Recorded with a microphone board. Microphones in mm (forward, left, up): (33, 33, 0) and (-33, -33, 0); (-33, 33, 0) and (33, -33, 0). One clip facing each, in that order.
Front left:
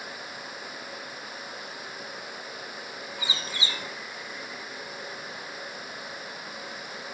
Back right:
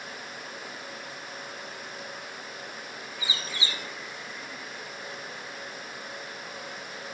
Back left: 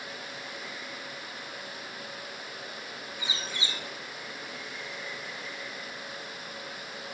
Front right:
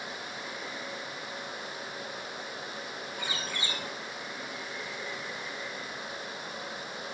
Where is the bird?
10° right, 4 m.